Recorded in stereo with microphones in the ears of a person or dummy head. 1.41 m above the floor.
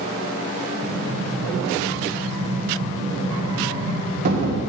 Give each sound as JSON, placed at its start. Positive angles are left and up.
{"t": 0.8, "sound": "an explosion", "side_deg": -40, "distance_m": 1.9}